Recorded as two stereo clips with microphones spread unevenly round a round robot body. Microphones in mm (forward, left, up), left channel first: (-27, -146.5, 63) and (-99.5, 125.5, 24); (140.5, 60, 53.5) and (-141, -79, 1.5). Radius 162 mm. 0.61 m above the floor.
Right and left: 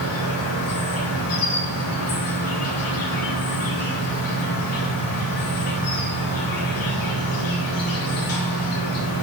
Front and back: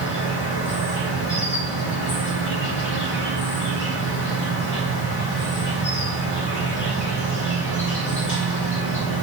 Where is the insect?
30° right, 3 m.